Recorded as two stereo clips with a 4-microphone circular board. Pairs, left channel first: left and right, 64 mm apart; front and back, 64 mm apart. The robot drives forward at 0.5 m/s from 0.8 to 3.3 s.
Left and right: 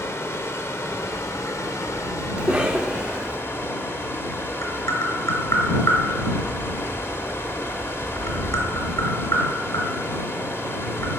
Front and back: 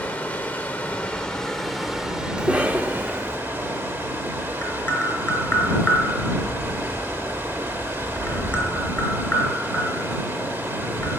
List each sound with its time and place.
0.0 s running water: 60° left, 1.2 m; by 11.2 s 130° left, 1.3 m
2.4 s a cough: 130° right, 0.7 m; by 3.4 s 160° right, 0.9 m
4.6 s tapping: 65° left, 3.5 m